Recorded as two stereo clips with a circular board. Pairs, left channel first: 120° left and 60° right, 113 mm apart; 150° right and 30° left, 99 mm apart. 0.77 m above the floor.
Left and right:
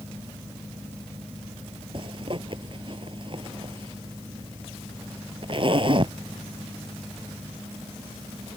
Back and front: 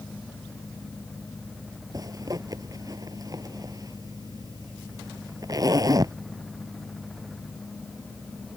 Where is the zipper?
20° right.